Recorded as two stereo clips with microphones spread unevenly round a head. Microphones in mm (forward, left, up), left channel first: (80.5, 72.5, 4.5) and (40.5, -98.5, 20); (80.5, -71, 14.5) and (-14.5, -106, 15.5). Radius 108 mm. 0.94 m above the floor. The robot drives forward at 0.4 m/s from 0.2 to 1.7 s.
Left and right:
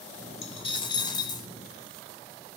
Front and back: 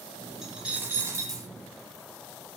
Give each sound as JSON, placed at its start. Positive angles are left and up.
{"t": 0.4, "sound": "a dropped coin", "azimuth_deg": 120, "distance_m": 0.8}